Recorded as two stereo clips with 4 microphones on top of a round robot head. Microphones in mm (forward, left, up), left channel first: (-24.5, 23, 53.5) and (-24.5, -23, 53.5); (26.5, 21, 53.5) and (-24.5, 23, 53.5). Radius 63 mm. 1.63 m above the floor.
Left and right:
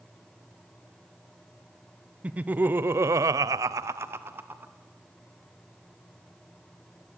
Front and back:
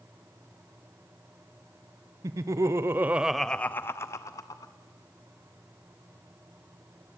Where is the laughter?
155° right, 1.0 m; by 4.7 s 30° right, 1.2 m.